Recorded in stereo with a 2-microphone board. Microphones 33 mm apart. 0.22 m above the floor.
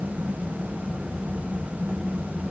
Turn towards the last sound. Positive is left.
No sound to turn to.